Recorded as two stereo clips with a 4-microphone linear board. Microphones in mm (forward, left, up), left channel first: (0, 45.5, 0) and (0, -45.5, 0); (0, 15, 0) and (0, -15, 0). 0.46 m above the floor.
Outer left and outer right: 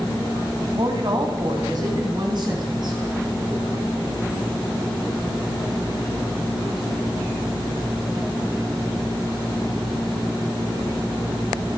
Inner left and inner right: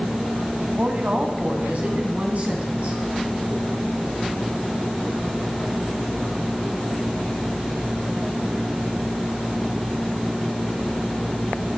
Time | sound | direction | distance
0.6 | a woman speaking | 50° right (ahead or behind) | 2.5 m